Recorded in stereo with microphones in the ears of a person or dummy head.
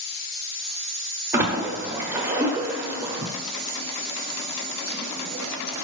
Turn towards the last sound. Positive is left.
turn(degrees=-15)  # may be behind; listen again after turning